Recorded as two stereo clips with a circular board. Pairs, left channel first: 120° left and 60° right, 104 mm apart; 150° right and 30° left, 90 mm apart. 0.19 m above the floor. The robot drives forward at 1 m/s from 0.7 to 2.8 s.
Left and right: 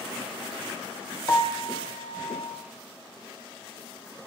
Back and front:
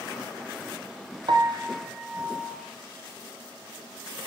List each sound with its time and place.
1.3 s a piano: 60° left, 1.0 m; by 2.6 s 135° left, 1.2 m